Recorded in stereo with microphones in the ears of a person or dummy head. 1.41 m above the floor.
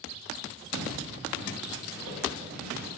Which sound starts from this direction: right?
Footsteps, at 0.7 s.